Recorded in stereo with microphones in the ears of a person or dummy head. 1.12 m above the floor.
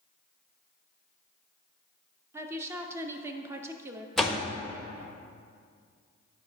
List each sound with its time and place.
2.3 s a woman speaking: 20° right (ahead or behind), 0.5 m
4.2 s a door slam: centre (ahead or behind), 0.7 m